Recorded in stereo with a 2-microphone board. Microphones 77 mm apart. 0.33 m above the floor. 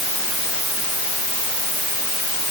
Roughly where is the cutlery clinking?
I don't hear cutlery clinking.